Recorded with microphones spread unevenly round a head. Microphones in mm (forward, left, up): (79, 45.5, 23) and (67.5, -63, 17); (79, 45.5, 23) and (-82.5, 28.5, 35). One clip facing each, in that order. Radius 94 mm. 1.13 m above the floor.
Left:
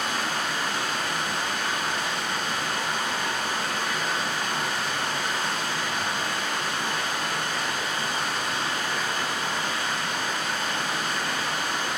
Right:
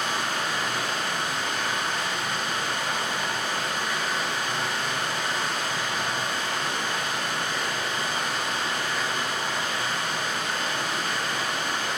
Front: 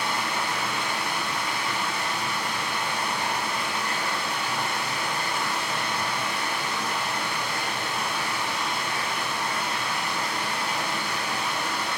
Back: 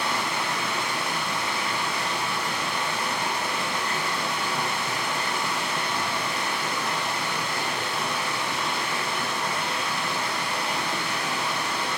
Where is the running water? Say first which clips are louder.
Even, back 1 dB; 160° left, 1.1 m.